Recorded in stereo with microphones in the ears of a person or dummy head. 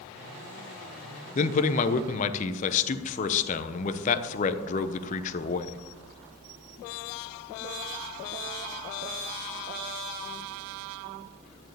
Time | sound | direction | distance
1.4 | a man speaking | 35° left (ahead or behind) | 1.0 m